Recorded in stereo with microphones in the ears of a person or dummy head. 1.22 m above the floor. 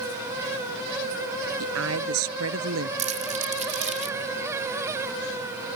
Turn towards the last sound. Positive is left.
turn(degrees=-45)  # may be behind; listen again after turning